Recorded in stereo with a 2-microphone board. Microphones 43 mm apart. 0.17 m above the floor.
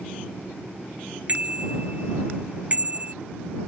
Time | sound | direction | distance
1.3 | a bicycle bell | 30° right (ahead or behind) | ?